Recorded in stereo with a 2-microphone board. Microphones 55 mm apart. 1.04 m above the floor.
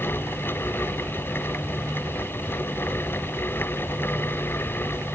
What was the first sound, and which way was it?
Only background noise.